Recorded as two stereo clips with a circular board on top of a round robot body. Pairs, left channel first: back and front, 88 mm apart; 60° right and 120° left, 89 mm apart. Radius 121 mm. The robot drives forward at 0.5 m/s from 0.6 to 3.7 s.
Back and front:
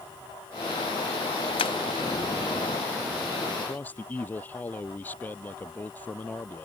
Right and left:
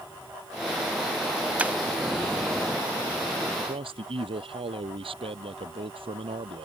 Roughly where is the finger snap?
I don't hear a finger snap.